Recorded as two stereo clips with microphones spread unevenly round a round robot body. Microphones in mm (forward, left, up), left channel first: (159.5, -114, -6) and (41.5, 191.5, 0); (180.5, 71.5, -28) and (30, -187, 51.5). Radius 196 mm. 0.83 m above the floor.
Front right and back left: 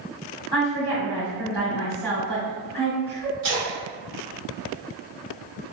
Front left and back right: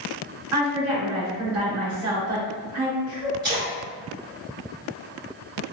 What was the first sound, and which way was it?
A woman speaking, 165° right.